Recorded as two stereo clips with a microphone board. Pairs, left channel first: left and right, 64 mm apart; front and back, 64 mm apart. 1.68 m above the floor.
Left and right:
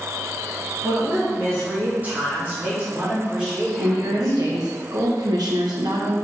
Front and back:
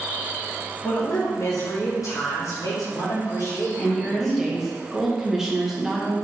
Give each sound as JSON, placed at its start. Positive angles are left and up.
{"t": 0.8, "sound": "a woman speaking", "azimuth_deg": -40, "distance_m": 3.5}
{"t": 3.8, "sound": "a woman speaking", "azimuth_deg": -95, "distance_m": 2.0}